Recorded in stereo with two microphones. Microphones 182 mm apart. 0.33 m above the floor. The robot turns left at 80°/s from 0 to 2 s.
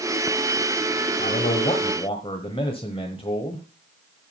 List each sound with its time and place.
1.2 s a man speaking: 110° left, 1.2 m; by 3.6 s 45° left, 1.2 m